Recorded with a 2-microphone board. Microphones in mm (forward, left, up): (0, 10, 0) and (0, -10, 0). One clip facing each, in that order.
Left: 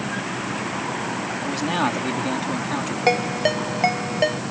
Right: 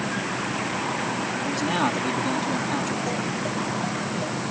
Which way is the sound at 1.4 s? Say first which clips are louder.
Left 2 dB; 15° left (ahead or behind).